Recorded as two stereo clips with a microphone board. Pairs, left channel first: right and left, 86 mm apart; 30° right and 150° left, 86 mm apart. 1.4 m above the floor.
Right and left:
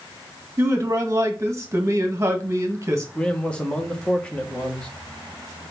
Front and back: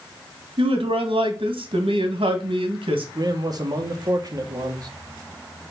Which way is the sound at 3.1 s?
170° right.